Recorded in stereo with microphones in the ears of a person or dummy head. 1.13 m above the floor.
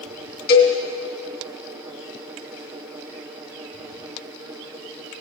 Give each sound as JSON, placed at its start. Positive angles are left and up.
{"t": 0.5, "sound": "a cowbell", "side_deg": 55, "distance_m": 2.5}